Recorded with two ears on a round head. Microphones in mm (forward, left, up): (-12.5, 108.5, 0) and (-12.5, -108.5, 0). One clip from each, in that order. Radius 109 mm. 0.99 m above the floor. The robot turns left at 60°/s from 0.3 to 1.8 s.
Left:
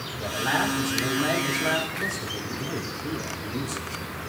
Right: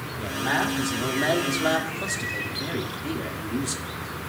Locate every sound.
0.2 s a man speaking: 15° left, 2 m; by 4.0 s 75° right, 2 m